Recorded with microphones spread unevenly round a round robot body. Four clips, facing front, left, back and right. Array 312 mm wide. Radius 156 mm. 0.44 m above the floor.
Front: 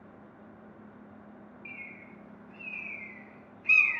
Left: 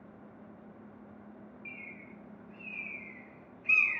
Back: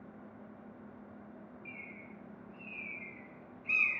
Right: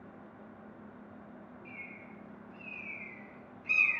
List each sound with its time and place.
1.6 s a bird: 5° left, 0.5 m